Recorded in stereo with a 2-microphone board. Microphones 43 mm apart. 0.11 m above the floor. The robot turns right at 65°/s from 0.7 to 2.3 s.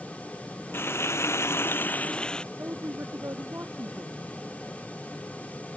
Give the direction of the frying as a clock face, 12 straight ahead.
10 o'clock.